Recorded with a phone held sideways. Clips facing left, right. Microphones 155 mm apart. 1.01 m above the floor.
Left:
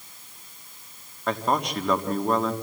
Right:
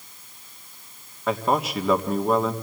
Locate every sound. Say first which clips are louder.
1.3 s a man speaking: right 2 dB; 5° right (ahead or behind), 1.6 m